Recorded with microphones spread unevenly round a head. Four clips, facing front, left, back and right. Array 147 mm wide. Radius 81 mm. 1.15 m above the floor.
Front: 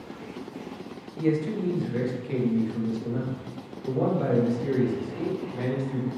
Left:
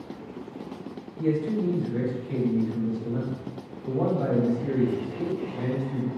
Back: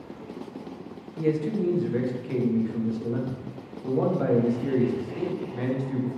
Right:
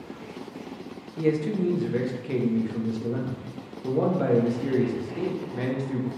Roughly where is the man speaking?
Right.